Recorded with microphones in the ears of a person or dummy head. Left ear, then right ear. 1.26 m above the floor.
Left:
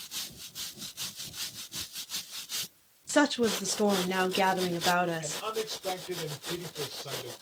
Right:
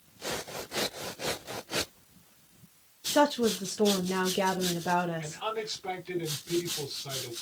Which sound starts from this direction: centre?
A man speaking, at 5.2 s.